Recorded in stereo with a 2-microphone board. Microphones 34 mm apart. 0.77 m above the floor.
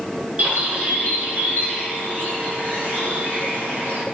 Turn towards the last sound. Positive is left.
turn(degrees=-50)  # may be behind; listen again after turning